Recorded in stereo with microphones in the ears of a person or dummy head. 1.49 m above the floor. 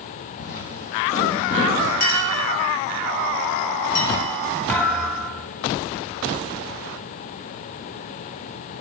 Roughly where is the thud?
Centre.